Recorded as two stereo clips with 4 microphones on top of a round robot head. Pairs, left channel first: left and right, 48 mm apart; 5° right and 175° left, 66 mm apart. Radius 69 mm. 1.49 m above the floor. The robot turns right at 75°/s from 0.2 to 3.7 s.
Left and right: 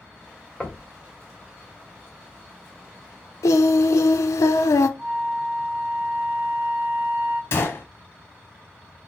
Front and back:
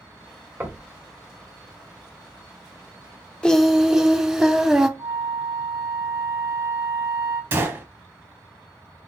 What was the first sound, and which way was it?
Knocking, 135° left.